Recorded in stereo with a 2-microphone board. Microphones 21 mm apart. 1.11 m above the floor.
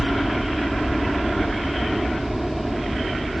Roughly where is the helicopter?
Centre.